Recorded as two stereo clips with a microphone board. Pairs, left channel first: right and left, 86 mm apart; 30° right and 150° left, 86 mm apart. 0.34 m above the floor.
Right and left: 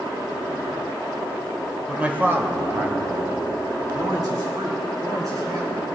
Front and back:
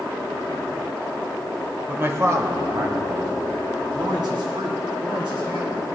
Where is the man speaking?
155° left, 0.9 m; by 5.8 s 125° left, 4 m.